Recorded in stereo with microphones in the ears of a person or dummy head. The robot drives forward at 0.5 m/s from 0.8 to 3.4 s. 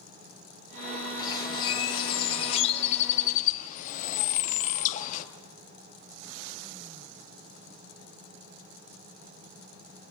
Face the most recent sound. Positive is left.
turn(degrees=50)  # may be behind; listen again after turning